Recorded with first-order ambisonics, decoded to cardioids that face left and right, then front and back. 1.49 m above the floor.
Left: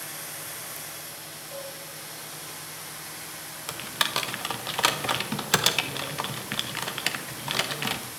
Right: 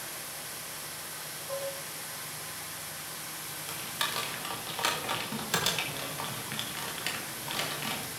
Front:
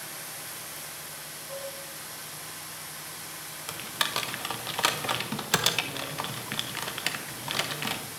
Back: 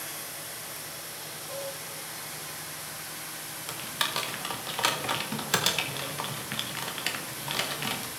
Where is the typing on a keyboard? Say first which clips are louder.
Left 6 dB, front 1 dB; 70° left, 0.6 m.